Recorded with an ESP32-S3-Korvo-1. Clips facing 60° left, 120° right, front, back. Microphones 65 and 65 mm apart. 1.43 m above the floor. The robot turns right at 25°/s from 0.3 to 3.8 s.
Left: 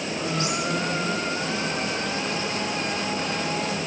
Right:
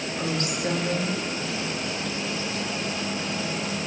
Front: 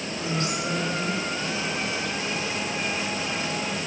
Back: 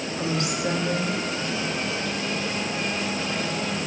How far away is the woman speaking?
About 3 m.